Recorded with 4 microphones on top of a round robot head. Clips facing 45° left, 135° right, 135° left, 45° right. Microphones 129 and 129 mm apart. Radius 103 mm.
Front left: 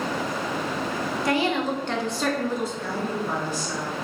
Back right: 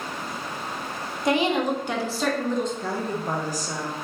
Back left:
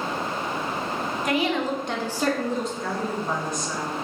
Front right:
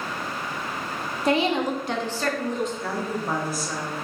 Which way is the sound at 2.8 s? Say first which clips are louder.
Even, back left 1 dB; 125° right.